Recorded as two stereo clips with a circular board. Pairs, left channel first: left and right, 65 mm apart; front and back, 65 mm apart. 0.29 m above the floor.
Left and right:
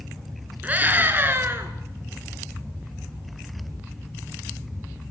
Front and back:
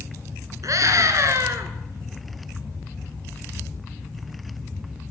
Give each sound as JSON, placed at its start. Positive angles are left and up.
{"t": 0.6, "sound": "a scream", "azimuth_deg": -155, "distance_m": 3.0}